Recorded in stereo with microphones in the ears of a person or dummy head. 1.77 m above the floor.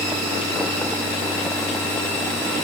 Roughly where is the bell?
I don't hear a bell.